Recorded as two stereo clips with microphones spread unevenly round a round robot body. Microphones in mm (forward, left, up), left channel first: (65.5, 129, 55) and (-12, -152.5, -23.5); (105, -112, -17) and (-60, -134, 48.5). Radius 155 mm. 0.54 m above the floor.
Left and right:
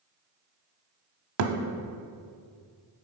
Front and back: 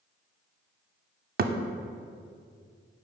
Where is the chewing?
No chewing in this recording.